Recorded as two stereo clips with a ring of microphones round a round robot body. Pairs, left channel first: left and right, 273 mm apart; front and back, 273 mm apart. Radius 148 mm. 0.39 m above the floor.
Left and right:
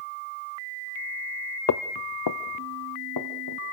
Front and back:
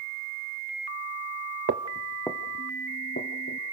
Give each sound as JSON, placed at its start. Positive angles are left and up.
{"t": 1.7, "sound": "footsteps", "azimuth_deg": 125, "distance_m": 0.8}